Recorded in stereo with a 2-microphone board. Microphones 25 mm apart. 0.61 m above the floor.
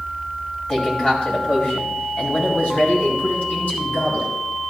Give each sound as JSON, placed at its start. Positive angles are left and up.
{"t": 0.7, "sound": "a man speaking", "side_deg": 35, "distance_m": 3.0}